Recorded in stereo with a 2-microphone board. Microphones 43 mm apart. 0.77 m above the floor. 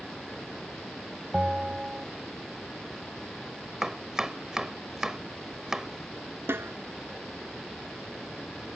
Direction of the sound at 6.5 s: 65° right (ahead or behind).